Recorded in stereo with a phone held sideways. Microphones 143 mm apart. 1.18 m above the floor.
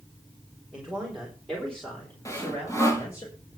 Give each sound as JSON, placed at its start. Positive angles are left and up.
{"t": 0.7, "sound": "a man speaking", "side_deg": -5, "distance_m": 3.0}
{"t": 2.2, "sound": "sawing", "side_deg": 20, "distance_m": 2.5}